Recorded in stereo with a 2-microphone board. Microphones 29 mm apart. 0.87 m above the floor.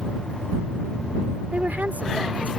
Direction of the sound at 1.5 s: 75° right (ahead or behind).